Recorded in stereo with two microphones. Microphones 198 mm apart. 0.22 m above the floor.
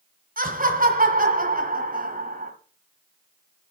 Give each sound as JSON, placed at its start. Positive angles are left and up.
{"t": 0.4, "sound": "laughter", "side_deg": -45, "distance_m": 1.9}